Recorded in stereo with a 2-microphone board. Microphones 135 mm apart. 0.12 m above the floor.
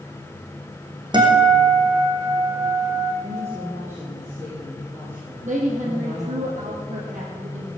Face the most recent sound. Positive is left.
turn(degrees=-65)  # may be behind; listen again after turning